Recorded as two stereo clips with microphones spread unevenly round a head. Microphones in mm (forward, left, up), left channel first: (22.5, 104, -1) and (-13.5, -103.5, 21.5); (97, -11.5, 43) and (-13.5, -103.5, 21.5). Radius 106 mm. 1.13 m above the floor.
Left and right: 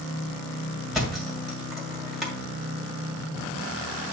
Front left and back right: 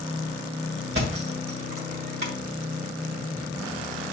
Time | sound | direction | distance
0.9 | a thud | 175° left | 1.7 m